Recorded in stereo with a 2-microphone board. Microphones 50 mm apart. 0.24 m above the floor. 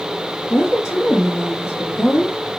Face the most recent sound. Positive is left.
turn(degrees=55)  # may be behind; listen again after turning